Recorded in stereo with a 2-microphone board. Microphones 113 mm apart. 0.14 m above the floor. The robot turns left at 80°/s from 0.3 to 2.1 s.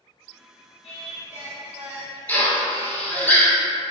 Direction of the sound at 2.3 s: 15° left (ahead or behind).